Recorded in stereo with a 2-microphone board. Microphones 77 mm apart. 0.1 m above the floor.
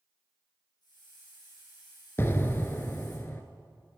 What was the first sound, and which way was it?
A hiss, 65° left (ahead or behind).